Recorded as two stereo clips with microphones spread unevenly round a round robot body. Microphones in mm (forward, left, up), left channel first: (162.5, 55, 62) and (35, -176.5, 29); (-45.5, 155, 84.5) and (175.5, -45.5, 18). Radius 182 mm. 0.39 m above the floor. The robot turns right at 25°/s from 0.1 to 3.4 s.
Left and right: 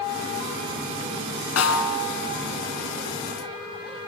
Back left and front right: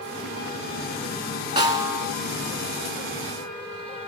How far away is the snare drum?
About 3 m.